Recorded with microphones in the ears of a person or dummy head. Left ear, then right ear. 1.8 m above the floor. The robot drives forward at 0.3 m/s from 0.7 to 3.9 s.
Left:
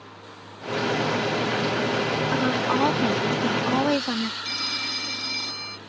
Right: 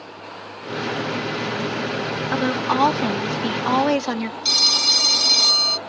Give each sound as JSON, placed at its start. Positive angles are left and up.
{"t": 2.3, "sound": "a woman speaking", "side_deg": -25}
{"t": 4.5, "sound": "a phone ringing", "side_deg": -40}